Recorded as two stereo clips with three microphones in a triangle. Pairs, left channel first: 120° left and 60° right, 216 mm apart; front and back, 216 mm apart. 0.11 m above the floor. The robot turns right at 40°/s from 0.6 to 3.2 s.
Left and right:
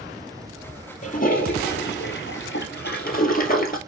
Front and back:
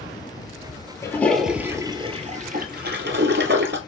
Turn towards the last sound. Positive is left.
turn(degrees=160)